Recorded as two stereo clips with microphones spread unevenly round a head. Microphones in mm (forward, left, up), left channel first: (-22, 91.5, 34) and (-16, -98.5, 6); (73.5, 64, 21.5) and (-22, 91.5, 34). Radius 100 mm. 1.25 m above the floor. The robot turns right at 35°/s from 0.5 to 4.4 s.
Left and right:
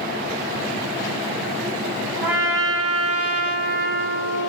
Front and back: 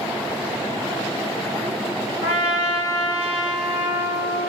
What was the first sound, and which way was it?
A trumpet, straight behind.